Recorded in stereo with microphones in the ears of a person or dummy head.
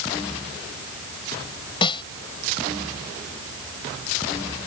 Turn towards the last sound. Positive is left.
turn(degrees=30)  # may be behind; listen again after turning